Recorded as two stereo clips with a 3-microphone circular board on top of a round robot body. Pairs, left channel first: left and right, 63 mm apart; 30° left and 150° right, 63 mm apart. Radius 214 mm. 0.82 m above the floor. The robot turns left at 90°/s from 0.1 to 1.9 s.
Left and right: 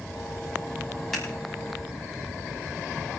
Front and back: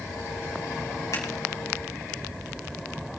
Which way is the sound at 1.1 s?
Straight ahead.